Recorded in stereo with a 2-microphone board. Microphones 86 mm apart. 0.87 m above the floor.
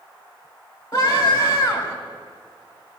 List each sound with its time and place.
0.9 s a scream: 35° left (ahead or behind), 5.5 m